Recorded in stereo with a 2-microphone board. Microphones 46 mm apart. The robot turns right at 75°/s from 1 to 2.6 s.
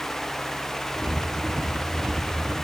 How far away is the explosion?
No explosion in this recording.